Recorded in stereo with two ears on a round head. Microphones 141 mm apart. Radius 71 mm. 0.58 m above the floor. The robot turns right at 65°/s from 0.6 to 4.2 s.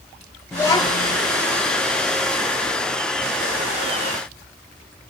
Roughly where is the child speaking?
Ahead.